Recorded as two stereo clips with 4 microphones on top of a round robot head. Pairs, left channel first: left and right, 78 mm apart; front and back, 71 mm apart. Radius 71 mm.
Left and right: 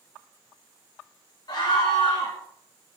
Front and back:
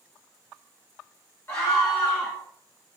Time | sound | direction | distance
1.5 | a scream | 60° left | 3 m